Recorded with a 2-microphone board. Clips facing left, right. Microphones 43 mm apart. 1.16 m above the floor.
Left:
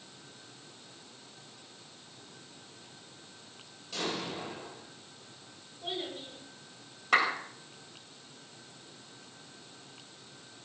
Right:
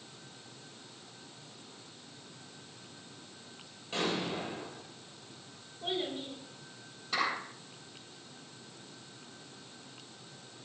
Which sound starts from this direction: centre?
A child speaking, at 5.8 s.